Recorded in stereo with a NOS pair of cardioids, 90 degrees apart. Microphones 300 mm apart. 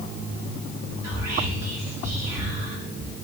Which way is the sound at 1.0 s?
65° right.